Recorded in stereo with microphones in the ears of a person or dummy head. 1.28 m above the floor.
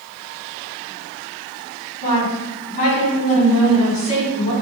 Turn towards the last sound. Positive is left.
turn(degrees=45)  # may be behind; listen again after turning